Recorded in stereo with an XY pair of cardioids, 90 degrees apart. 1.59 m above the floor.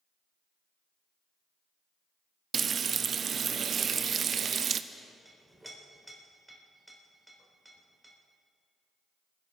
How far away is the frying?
About 0.5 m.